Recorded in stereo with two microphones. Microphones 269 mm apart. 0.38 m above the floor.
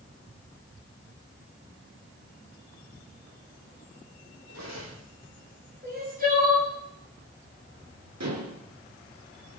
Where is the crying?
35° right (ahead or behind), 6.5 m.